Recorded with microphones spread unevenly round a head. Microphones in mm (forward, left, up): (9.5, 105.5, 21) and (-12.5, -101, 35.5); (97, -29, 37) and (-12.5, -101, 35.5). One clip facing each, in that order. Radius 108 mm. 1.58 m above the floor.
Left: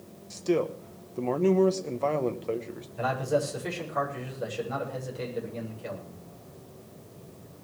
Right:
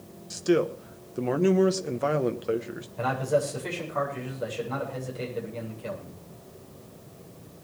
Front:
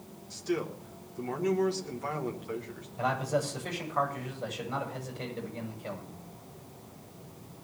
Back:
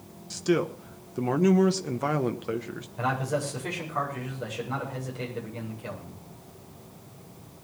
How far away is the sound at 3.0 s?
About 8 m.